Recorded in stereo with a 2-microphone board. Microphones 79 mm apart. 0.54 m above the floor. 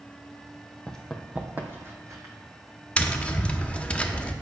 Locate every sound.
0.9 s running footsteps: 10° left (ahead or behind), 1.0 m; by 2.3 s 45° right (ahead or behind), 1.6 m
3.0 s tapping: 15° left (ahead or behind), 0.5 m